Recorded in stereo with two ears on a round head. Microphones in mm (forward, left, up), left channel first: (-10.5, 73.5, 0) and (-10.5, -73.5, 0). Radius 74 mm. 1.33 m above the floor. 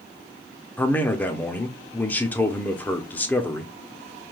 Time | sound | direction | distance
0.8 | a man speaking | 10° left (ahead or behind) | 0.5 m